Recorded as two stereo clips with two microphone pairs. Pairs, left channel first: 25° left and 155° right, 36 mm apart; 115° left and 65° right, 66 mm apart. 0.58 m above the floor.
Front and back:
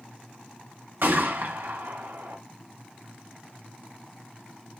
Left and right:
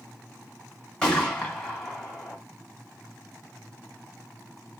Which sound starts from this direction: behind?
A gunshot, at 1.0 s.